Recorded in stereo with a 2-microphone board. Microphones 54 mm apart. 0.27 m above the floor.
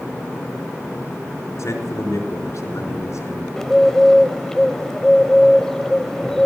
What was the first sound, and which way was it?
A man speaking, 60° left (ahead or behind).